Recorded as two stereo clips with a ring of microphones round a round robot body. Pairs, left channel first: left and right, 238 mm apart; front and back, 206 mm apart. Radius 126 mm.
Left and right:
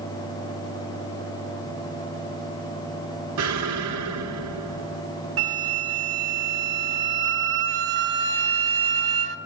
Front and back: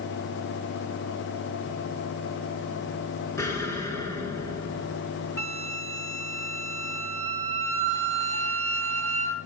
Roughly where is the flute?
Right.